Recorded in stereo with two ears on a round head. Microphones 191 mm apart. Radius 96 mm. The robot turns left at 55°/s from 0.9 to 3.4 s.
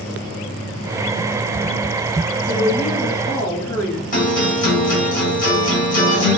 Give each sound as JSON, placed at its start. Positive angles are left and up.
{"t": 2.5, "sound": "a woman speaking", "azimuth_deg": -165, "distance_m": 2.5}
{"t": 4.1, "sound": "a guitar", "side_deg": 40, "distance_m": 2.5}